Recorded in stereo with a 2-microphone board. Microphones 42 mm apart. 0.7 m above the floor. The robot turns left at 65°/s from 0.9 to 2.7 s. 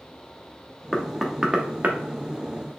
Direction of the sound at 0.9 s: 15° left (ahead or behind).